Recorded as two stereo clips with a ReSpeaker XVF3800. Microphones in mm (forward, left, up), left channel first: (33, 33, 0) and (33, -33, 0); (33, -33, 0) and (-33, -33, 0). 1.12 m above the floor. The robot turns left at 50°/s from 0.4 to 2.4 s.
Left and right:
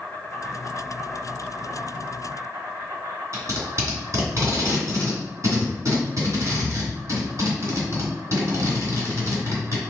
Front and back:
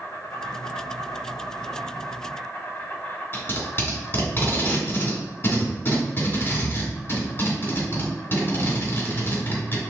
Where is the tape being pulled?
55° right, 1.9 m.